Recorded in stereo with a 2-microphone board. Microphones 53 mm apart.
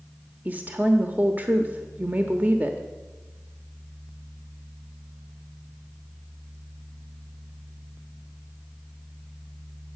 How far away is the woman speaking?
About 1.1 m.